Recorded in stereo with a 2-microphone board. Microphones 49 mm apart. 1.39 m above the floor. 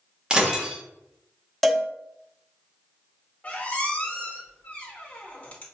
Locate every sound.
0.3 s breaking glass: 20° right (ahead or behind), 0.7 m
1.6 s a cowbell: centre (ahead or behind), 0.5 m
3.4 s a squeak: 30° left (ahead or behind), 1.1 m